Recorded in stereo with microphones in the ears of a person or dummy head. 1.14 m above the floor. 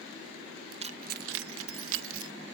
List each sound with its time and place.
0.8 s keys jangling: 30° right (ahead or behind); by 2.3 s 80° right